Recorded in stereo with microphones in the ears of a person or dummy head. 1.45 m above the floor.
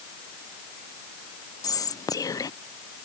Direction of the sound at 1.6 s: 20° left (ahead or behind).